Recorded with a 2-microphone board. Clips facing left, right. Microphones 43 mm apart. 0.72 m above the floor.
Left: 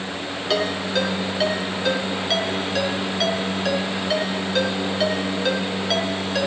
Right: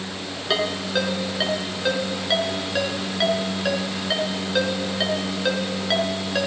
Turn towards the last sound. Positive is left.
turn(degrees=-10)  # may be behind; listen again after turning